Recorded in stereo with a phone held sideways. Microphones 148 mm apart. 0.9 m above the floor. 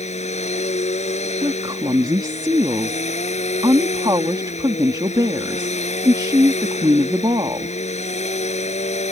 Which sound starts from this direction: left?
A machine running, at 0.0 s.